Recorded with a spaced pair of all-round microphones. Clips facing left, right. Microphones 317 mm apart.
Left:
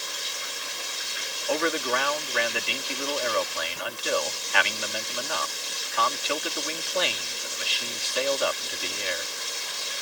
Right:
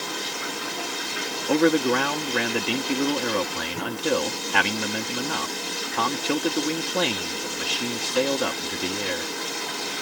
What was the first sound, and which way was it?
Running water, 70° right (ahead or behind).